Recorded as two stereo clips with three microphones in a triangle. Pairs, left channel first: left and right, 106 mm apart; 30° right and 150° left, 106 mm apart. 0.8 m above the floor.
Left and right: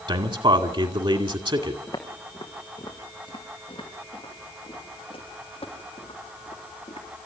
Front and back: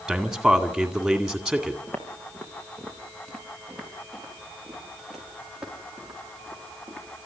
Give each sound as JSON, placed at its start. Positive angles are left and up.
{"t": 0.1, "sound": "a man speaking", "azimuth_deg": -125, "distance_m": 2.0}
{"t": 1.9, "sound": "footsteps", "azimuth_deg": 40, "distance_m": 3.5}